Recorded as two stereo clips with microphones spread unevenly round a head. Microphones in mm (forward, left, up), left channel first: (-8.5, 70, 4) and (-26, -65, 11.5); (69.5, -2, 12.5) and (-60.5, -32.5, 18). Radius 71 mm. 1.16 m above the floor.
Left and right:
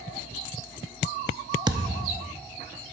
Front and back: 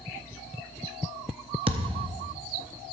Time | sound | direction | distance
1.7 | a thud | 140° right | 0.7 m